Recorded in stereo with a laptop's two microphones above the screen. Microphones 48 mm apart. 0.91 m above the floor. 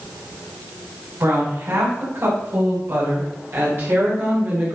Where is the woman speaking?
85° right, 4.5 m; by 4.8 s 65° right (ahead or behind), 2 m.